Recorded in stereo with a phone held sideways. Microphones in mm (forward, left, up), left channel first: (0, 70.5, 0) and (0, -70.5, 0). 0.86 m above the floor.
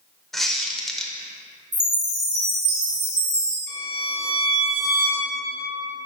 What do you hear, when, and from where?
0.3 s a squeak: centre (ahead or behind), 0.8 m
1.7 s a chime: 55° right (ahead or behind), 1.6 m
3.7 s a violin: 80° right, 1.6 m